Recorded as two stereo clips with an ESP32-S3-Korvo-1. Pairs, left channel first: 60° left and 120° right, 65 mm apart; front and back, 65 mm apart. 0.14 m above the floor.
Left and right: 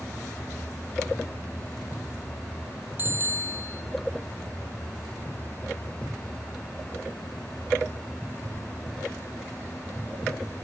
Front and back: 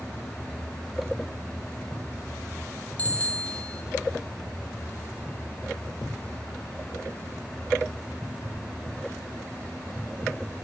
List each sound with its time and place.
3.0 s a bicycle bell: 65° right, 2 m